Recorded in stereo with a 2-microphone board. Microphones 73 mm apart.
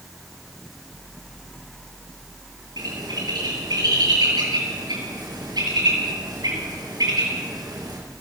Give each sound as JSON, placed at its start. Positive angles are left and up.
{"t": 2.8, "sound": "a bird", "side_deg": -70, "distance_m": 9.0}